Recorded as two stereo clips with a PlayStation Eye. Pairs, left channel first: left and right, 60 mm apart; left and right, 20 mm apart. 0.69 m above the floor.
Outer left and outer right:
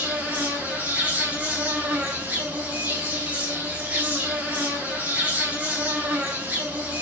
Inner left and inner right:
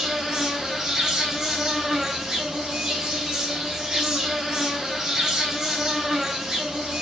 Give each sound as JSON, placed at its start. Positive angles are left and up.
{"t": 0.0, "sound": "an insect", "side_deg": -25, "distance_m": 1.1}